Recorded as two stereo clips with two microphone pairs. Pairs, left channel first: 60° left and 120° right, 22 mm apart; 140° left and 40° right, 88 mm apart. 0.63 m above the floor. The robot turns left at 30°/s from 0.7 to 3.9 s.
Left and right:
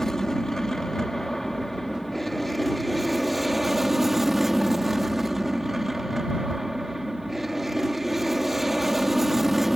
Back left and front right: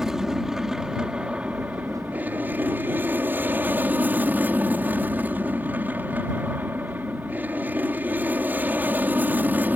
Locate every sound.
0.0 s an aircraft: 30° left; by 9.8 s 65° right